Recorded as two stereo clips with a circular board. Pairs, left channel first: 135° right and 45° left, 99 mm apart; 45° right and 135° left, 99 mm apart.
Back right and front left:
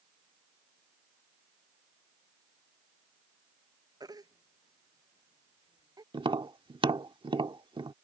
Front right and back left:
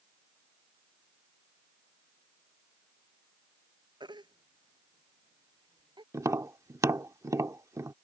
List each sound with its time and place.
4.0 s a baby crying: 95° left
6.1 s tapping: 80° left